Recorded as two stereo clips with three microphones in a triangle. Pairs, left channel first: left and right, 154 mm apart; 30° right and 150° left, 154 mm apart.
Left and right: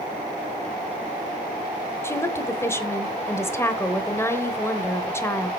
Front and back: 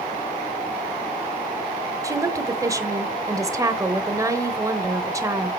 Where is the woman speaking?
130° left, 0.9 m.